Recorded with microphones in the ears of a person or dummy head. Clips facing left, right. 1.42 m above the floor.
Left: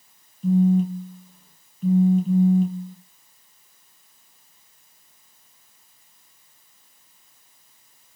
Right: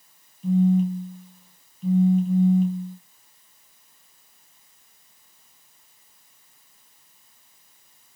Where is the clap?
No clap in this recording.